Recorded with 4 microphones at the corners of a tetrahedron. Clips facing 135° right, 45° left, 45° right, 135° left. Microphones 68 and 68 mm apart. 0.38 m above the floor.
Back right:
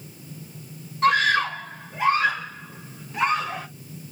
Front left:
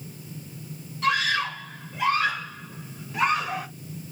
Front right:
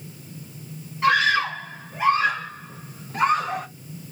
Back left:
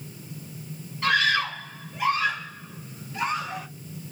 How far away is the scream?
About 1.9 m.